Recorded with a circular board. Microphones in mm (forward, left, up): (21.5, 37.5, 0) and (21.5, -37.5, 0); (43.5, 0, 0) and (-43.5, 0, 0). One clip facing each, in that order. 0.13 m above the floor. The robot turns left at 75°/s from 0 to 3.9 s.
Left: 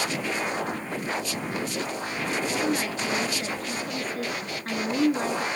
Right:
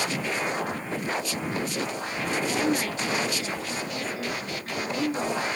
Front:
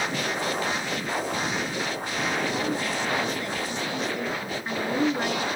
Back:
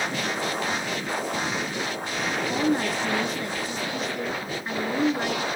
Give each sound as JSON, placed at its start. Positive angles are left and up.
{"t": 2.5, "sound": "a woman speaking", "azimuth_deg": -165, "distance_m": 1.5}